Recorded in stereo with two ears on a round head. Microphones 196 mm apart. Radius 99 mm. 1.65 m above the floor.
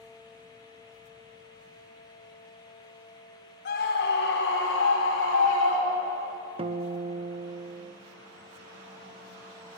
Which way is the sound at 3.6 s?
55° left (ahead or behind).